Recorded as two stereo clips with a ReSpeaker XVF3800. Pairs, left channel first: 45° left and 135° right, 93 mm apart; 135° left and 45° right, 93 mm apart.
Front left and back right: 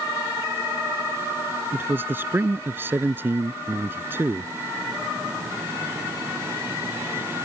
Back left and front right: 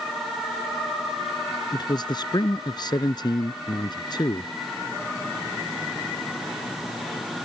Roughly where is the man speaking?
Behind.